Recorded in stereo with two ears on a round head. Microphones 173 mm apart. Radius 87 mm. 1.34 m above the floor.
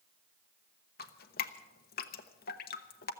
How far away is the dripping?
About 0.9 m.